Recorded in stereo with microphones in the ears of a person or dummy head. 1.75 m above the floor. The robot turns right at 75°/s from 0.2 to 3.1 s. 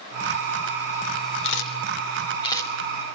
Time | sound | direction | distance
1.4 | a camera shutter | 70° left (ahead or behind) | 4 m